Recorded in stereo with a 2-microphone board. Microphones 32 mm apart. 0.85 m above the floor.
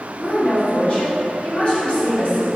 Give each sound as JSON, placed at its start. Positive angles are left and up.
{"t": 0.2, "sound": "a woman speaking", "side_deg": 40, "distance_m": 1.5}